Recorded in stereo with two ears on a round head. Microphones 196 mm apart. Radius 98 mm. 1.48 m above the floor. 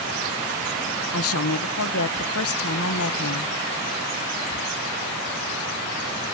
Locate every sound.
1.1 s a woman speaking: 70° left (ahead or behind), 1.1 m